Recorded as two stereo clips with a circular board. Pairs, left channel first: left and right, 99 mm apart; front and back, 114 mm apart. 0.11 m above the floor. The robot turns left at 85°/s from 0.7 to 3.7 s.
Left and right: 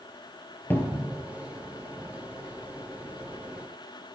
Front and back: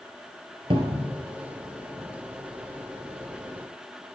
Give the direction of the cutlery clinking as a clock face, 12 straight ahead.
I don't hear cutlery clinking.